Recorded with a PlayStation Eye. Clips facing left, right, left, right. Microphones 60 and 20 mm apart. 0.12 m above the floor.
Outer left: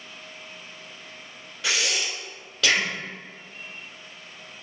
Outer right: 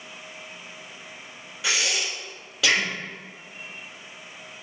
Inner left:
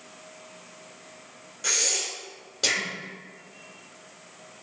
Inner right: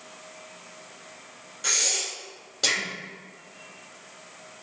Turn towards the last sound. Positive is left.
turn(degrees=-5)  # may be behind; listen again after turning